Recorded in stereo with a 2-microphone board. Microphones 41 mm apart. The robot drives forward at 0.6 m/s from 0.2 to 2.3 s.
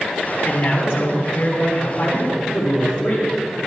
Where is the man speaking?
70° left (ahead or behind), 5.5 m; by 3.3 s 65° left (ahead or behind), 5.5 m.